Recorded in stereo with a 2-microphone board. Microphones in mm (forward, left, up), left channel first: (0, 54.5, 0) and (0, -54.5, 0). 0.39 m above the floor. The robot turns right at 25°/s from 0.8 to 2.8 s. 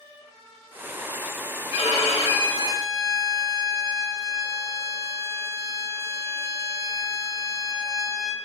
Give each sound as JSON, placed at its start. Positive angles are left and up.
{"t": 1.7, "sound": "a violin", "side_deg": 65, "distance_m": 0.6}